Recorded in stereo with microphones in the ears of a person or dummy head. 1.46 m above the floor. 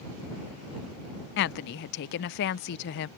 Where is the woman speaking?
65° left (ahead or behind).